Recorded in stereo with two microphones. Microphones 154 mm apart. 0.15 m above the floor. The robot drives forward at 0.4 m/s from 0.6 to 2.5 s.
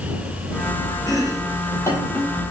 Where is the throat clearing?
No throat clearing in this recording.